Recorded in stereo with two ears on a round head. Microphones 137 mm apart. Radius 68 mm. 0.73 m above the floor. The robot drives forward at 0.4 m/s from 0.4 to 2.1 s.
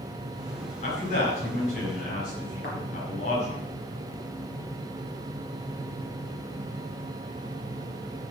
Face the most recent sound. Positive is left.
turn(degrees=75)  # may be behind; listen again after turning